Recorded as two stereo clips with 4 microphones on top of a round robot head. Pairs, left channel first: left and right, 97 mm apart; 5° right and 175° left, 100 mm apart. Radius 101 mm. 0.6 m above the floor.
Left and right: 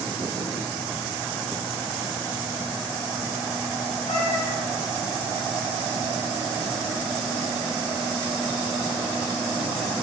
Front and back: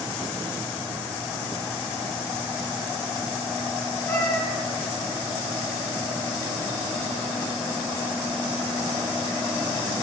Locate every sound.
4.1 s a cat meowing: 50° left, 3.5 m